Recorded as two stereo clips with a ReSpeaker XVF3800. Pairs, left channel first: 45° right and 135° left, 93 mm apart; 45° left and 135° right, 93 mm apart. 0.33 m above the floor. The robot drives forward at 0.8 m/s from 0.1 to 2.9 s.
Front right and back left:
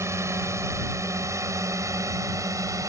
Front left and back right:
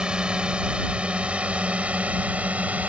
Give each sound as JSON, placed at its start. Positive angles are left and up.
{"t": 0.0, "sound": "a drone", "azimuth_deg": 155}